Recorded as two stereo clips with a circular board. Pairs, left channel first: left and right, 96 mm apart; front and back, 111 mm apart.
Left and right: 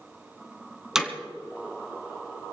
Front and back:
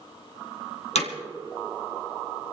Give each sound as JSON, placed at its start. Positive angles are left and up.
{"t": 0.9, "sound": "hammering", "azimuth_deg": -5, "distance_m": 2.5}